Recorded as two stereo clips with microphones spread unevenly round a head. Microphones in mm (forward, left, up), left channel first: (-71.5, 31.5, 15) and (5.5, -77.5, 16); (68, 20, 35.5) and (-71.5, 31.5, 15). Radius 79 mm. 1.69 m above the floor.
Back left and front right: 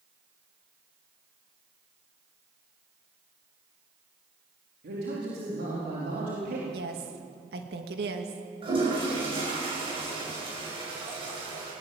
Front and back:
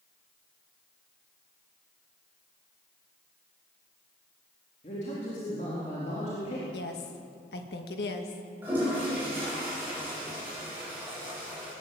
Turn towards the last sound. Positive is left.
turn(degrees=-105)